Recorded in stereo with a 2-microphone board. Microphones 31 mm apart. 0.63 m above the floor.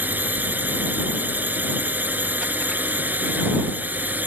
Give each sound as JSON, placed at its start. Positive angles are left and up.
{"t": 0.0, "sound": "a drone", "side_deg": -85}